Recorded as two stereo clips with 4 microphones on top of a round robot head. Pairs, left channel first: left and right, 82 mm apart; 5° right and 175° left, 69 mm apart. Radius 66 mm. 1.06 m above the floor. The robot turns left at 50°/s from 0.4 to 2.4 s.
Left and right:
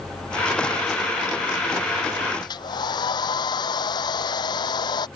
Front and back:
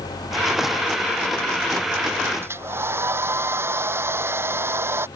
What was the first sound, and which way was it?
A hair dryer, 125° left.